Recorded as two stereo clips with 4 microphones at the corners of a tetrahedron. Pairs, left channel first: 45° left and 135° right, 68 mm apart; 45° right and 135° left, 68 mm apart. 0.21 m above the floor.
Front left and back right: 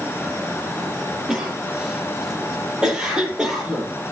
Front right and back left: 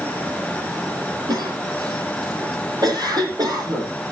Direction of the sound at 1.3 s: 145° left.